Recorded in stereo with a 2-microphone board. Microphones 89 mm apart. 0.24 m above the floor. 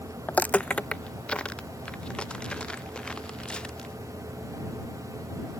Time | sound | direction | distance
0.3 | footsteps | 20° left (ahead or behind) | ?